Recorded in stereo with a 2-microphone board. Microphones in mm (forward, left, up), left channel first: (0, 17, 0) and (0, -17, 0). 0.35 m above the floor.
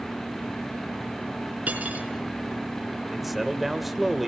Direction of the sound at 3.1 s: 5° right (ahead or behind).